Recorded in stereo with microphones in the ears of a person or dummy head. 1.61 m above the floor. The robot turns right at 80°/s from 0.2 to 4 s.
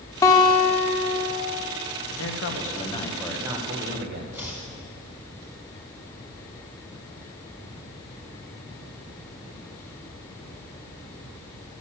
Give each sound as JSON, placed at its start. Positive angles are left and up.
{"t": 0.2, "sound": "a guitar", "azimuth_deg": 30, "distance_m": 1.5}
{"t": 2.1, "sound": "a man speaking", "azimuth_deg": 75, "distance_m": 1.6}
{"t": 4.3, "sound": "chopping", "side_deg": -15, "distance_m": 2.5}